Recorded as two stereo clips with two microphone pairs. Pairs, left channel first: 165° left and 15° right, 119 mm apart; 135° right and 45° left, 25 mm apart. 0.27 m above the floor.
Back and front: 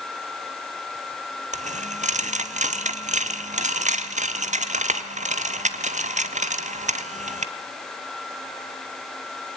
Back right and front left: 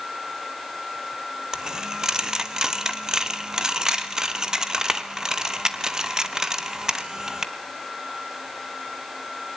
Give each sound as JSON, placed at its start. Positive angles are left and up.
{"t": 1.5, "sound": "a dropped coin", "azimuth_deg": -20, "distance_m": 1.3}